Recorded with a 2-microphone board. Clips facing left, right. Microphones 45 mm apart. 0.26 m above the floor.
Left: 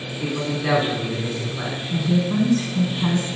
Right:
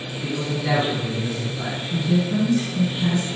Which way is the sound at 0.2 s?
55° left (ahead or behind).